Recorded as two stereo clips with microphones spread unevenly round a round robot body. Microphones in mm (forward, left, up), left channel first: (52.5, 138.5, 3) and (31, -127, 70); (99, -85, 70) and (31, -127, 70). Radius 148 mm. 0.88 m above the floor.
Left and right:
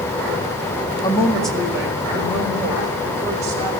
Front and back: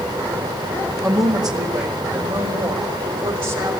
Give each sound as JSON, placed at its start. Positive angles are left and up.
{"t": 1.0, "sound": "a woman speaking", "azimuth_deg": 155, "distance_m": 1.6}